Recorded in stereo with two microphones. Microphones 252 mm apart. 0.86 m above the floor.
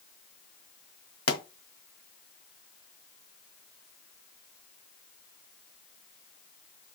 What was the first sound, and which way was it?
A pop, 65° left (ahead or behind).